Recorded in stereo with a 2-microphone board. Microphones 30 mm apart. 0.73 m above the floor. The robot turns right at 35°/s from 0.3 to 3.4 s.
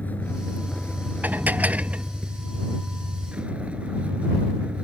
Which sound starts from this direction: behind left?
A vehicle, at 0.0 s.